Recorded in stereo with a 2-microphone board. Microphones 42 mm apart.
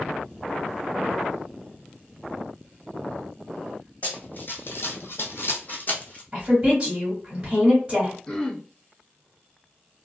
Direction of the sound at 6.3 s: 25° right (ahead or behind).